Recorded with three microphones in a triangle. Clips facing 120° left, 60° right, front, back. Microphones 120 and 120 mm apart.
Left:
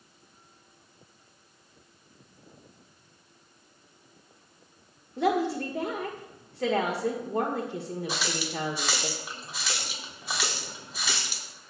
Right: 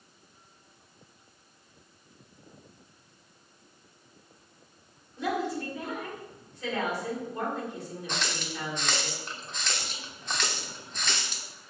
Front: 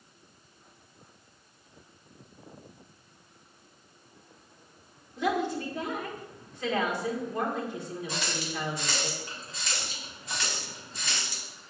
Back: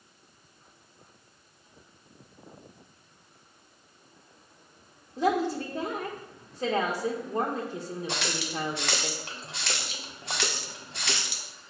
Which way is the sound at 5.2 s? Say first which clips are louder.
Left 5 dB, back 3 dB; 130° left.